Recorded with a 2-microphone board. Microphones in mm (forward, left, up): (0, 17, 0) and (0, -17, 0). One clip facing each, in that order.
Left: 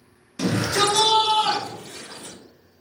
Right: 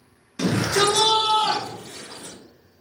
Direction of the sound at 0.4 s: 10° right (ahead or behind).